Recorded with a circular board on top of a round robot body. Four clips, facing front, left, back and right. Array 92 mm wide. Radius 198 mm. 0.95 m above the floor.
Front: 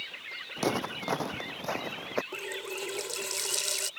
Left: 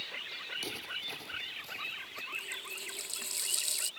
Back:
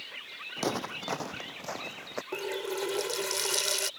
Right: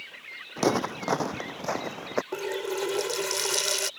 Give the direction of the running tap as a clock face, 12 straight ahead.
4 o'clock.